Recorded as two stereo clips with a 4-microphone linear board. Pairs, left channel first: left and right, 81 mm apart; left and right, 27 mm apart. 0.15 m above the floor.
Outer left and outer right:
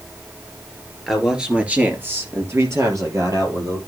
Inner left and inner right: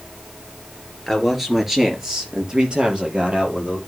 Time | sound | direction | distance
1.1 | a man speaking | 5° right (ahead or behind) | 3 m